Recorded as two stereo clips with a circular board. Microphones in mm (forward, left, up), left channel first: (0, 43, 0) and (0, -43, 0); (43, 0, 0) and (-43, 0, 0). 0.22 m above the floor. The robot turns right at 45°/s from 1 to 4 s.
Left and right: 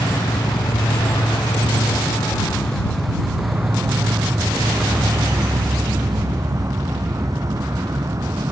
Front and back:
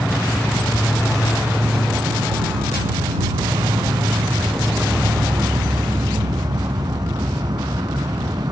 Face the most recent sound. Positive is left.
turn(degrees=-140)